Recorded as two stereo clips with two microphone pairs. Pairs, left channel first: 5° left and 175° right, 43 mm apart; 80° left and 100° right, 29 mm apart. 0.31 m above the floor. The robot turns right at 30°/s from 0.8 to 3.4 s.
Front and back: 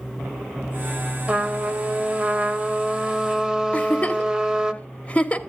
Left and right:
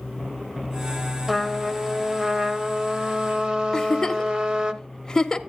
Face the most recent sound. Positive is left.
turn(degrees=30)